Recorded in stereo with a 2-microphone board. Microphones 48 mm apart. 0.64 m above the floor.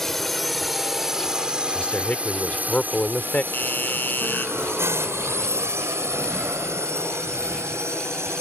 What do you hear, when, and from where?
0.0 s a drone: 5° left (ahead or behind); by 8.4 s 65° right (ahead or behind)
1.8 s a man speaking: 30° left (ahead or behind)
3.5 s a doorbell: 40° left (ahead or behind)